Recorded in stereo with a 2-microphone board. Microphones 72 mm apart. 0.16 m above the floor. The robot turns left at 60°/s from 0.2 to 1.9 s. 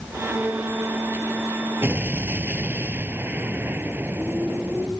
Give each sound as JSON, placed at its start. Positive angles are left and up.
{"t": 1.8, "sound": "an explosion", "side_deg": -30}